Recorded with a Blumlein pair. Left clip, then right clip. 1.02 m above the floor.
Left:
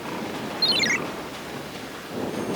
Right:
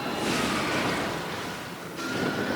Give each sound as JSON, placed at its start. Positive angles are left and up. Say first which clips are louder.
{"t": 0.6, "sound": "a ringtone", "louder": "left 6 dB", "azimuth_deg": 45}